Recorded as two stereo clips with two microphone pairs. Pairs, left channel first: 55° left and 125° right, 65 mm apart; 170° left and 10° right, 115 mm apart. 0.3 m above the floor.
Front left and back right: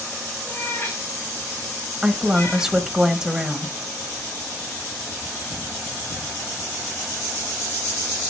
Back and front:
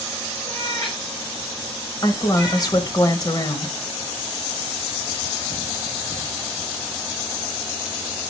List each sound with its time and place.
0.5 s a cat meowing: 110° left, 5 m
2.0 s a woman speaking: 160° left, 1.3 m